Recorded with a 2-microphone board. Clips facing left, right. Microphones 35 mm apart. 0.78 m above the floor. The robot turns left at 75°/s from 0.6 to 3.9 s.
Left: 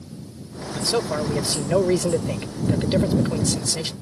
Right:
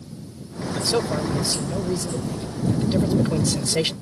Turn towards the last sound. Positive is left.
turn(degrees=-45)